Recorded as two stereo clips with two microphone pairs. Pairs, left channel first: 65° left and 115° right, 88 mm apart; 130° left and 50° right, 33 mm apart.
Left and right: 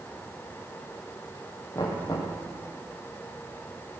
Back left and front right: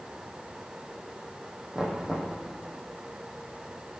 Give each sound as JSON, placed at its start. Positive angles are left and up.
{"t": 1.8, "sound": "knocking", "azimuth_deg": 15, "distance_m": 4.0}